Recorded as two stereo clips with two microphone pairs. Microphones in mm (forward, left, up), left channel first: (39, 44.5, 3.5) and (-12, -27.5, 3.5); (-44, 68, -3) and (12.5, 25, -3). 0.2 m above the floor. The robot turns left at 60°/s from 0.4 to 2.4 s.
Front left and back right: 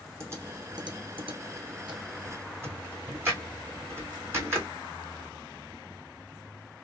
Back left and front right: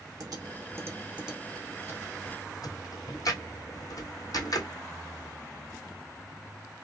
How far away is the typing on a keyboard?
About 2 m.